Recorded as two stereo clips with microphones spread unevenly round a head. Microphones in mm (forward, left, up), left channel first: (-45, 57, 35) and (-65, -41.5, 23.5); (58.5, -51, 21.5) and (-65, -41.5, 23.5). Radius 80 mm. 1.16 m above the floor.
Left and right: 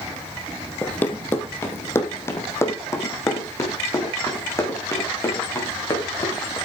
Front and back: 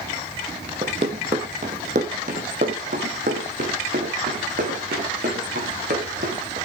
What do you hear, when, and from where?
0.8 s running footsteps: 140° left, 1.6 m; by 6.6 s 135° left, 5.5 m